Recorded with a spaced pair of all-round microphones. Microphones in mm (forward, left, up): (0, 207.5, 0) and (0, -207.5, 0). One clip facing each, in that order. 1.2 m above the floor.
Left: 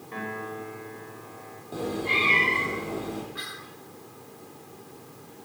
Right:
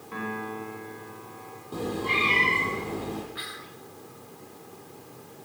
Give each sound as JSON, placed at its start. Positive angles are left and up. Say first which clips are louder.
{"t": 0.1, "sound": "a piano", "louder": "right 1 dB", "side_deg": -20, "distance_m": 5.5}
{"t": 1.7, "sound": "a cat meowing", "louder": "even", "side_deg": -10, "distance_m": 6.5}
{"t": 3.4, "sound": "whispering", "louder": "even", "side_deg": 60, "distance_m": 1.5}